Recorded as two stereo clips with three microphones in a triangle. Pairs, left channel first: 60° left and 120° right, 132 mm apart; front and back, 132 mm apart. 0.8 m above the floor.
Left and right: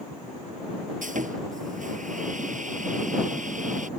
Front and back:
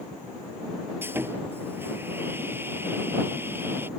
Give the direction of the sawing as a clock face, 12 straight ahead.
4 o'clock.